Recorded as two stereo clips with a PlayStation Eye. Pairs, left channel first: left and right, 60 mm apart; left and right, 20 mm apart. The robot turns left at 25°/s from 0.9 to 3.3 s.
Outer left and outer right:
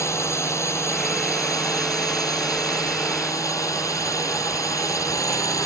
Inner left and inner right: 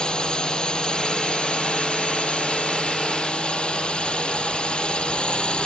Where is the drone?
125° left; by 5.7 s 65° left.